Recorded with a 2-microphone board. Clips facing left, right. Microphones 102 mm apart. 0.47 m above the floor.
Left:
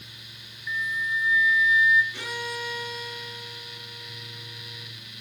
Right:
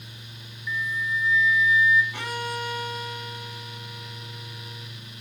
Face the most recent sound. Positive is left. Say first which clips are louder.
# right 3 dB
turn(degrees=-55)  # may be behind; listen again after turning